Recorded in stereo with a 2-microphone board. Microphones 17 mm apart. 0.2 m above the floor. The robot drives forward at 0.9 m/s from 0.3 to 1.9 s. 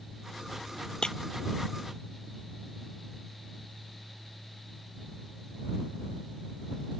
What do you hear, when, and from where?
1.0 s breaking glass: 55° left (ahead or behind)